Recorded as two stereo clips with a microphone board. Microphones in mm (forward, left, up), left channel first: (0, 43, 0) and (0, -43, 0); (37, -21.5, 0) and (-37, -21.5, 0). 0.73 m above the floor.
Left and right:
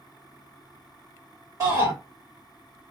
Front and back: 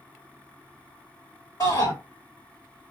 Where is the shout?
40° right, 2 m.